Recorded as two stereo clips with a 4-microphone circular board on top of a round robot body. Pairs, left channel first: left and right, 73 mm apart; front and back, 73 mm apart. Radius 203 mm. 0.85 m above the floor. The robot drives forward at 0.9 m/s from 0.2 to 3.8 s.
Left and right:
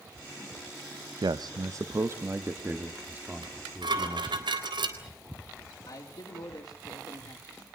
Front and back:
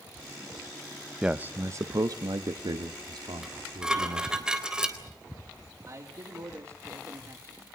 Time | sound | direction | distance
1.2 | a man speaking | 100° right | 0.8 m
3.4 | dishes clattering | 95° right | 3.5 m
5.9 | a man speaking | 130° left | 3 m